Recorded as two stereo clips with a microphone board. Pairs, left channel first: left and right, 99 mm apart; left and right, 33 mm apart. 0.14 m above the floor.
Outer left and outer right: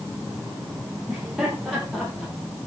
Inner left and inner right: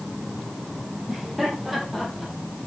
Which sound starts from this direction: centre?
Laughter, at 1.1 s.